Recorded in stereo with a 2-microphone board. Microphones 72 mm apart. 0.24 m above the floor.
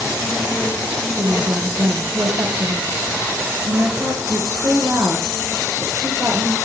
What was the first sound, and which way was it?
A woman speaking, 45° right (ahead or behind).